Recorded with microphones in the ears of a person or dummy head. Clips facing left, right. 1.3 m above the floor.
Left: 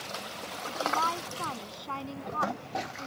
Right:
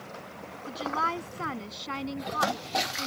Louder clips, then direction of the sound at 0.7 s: Even; 20° right (ahead or behind).